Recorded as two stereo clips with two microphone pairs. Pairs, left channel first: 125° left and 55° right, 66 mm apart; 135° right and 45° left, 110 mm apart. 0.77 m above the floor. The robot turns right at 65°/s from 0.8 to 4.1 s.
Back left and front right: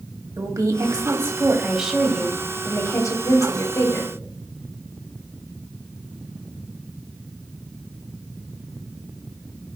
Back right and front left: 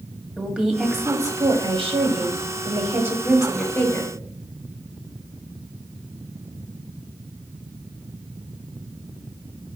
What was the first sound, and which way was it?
A woman speaking, 35° right.